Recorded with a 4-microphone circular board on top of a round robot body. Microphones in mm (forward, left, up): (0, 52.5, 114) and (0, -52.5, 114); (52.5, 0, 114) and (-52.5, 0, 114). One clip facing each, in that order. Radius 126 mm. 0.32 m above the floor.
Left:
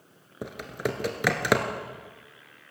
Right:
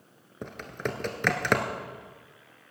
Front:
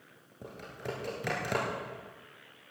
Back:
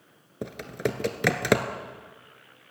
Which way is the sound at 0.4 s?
170° left.